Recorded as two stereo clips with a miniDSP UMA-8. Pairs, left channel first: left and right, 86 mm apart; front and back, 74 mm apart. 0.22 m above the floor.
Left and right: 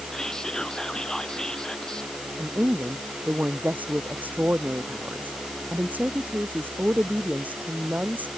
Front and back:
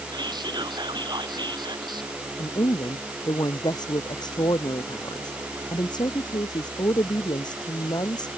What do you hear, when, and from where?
0.1 s whispering: 175° left
2.4 s a woman speaking: 20° right